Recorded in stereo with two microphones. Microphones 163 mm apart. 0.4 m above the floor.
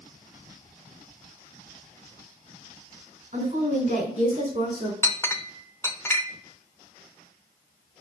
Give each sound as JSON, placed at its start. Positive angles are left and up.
{"t": 3.3, "sound": "a woman speaking", "side_deg": -45, "distance_m": 3.5}
{"t": 5.0, "sound": "a clink", "side_deg": 15, "distance_m": 0.6}